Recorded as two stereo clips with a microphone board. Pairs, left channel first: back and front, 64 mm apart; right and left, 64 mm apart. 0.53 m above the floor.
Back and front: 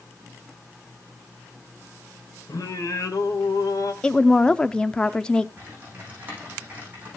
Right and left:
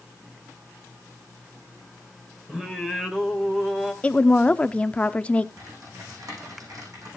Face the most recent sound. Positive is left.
turn(degrees=65)